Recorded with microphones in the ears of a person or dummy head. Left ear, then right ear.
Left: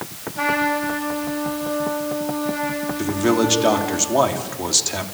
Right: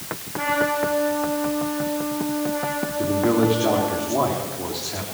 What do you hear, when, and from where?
0.3 s a trumpet: 35° left (ahead or behind), 9 m
3.0 s a man speaking: 85° left, 3 m